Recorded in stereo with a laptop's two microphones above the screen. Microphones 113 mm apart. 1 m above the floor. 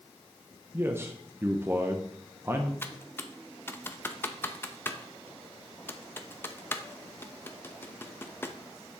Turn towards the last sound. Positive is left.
turn(degrees=20)  # may be behind; listen again after turning